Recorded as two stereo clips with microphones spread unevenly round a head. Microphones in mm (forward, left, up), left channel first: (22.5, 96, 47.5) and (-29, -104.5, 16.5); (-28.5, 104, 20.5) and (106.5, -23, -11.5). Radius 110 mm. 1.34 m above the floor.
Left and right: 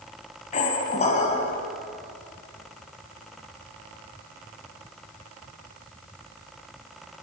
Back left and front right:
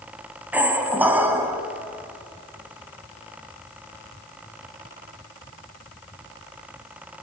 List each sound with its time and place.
0.5 s a squeak: 45° left, 1.5 m